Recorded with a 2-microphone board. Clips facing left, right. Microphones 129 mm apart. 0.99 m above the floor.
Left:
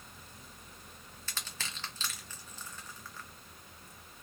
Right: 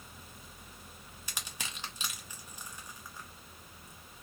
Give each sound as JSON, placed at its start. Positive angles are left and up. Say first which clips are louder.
{"t": 1.3, "sound": "crushing", "louder": "even", "side_deg": -15, "distance_m": 1.0}